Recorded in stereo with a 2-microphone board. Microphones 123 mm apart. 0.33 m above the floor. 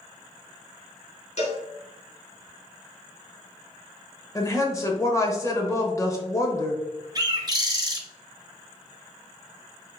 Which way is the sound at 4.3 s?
25° left (ahead or behind).